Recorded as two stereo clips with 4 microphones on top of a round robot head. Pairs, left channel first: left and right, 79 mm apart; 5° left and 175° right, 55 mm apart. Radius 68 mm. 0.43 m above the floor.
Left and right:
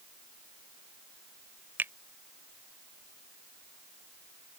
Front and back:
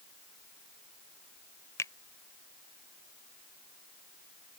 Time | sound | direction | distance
1.8 | a finger snap | 25° right | ?